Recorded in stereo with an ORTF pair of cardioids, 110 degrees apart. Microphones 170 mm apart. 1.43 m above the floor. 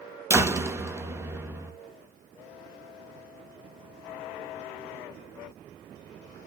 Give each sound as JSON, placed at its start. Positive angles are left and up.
{"t": 0.3, "sound": "a door slam", "azimuth_deg": -15, "distance_m": 1.7}